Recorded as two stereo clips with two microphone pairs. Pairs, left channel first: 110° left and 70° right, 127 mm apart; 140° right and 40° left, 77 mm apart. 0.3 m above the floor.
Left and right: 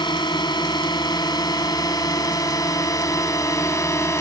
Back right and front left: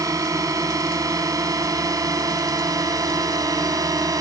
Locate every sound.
0.0 s a drone: 65° left; by 4.2 s 50° left